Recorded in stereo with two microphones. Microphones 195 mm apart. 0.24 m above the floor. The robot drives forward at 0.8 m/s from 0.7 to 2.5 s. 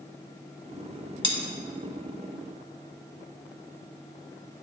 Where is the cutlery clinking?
25° right (ahead or behind), 0.9 m; by 1.4 s 30° right (ahead or behind), 0.8 m.